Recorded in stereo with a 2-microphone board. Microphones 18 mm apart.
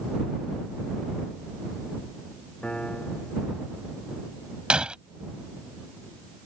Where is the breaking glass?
75° right (ahead or behind).